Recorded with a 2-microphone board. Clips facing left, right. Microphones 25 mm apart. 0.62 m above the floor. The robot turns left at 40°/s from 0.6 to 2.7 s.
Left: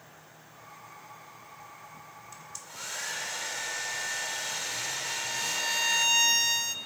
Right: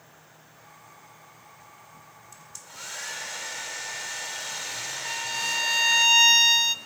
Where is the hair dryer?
10° left (ahead or behind), 2.0 m; by 6.0 s centre (ahead or behind), 2.0 m.